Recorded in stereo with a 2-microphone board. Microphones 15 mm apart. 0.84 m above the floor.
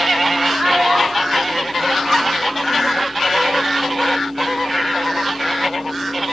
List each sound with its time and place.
0.6 s a child speaking: 50° right (ahead or behind), 4.5 m